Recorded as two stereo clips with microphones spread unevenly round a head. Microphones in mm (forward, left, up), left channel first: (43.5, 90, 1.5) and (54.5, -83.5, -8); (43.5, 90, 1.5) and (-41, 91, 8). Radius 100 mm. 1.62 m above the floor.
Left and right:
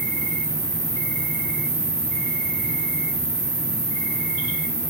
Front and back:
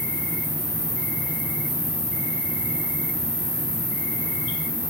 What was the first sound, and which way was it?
An insect, 120° right.